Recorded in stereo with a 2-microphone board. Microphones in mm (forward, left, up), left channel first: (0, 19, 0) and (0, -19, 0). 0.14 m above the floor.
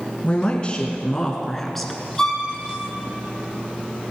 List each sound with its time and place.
0.2 s a woman speaking: 35° left (ahead or behind), 1.5 m; by 2.0 s centre (ahead or behind), 1.7 m
2.2 s a violin: 10° left (ahead or behind), 2.5 m